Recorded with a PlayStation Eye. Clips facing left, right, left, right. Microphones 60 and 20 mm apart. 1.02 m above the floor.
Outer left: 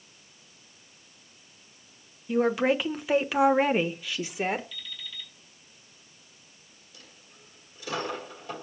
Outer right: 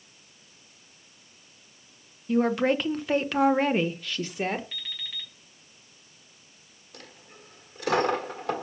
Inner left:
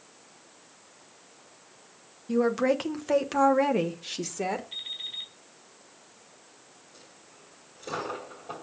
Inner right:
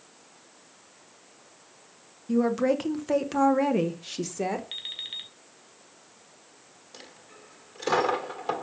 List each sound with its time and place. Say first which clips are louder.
2.3 s a woman speaking: outer right 1 dB, even; 5° left (ahead or behind), 1.1 m
4.7 s an alarm clock: outer right 3 dB, even; 55° right (ahead or behind), 3 m
6.9 s a dropped coin: outer right 7 dB, inner right 8 dB; 70° right (ahead or behind), 1.4 m